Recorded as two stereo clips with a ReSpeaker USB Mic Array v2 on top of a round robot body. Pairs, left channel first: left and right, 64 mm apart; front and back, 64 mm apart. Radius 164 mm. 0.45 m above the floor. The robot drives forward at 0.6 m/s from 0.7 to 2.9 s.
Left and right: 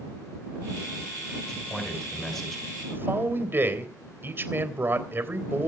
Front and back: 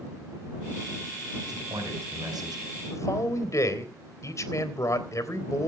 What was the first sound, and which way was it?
A man speaking, 175° left.